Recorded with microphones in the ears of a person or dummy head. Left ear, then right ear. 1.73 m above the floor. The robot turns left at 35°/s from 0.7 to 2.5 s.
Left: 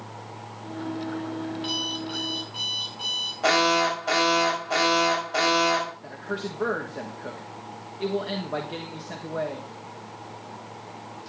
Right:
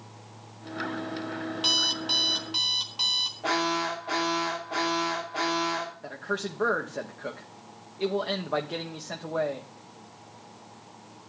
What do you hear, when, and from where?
1.6 s an alarm clock: 50° right, 1.5 m; by 3.3 s 85° right, 1.5 m
3.4 s an alarm: 70° left (ahead or behind), 6.5 m
6.0 s a man speaking: 35° right (ahead or behind), 1.2 m